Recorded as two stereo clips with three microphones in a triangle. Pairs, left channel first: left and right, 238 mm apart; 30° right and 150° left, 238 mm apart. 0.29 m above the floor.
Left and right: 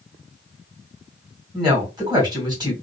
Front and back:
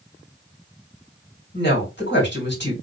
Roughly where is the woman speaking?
Ahead.